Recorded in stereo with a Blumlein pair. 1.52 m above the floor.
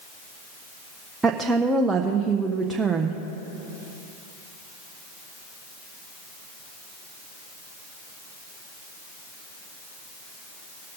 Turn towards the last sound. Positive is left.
turn(degrees=-15)